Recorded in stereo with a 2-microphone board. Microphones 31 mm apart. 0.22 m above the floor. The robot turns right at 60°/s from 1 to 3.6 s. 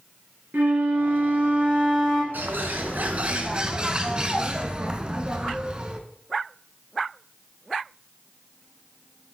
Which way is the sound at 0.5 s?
85° right.